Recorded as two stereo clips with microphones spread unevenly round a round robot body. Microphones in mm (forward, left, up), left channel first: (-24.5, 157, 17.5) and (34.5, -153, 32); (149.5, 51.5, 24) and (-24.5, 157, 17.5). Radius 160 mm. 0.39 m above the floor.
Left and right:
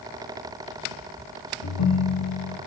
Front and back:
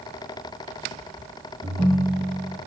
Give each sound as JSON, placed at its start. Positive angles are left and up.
{"t": 1.6, "sound": "a ringtone", "azimuth_deg": 80, "distance_m": 4.5}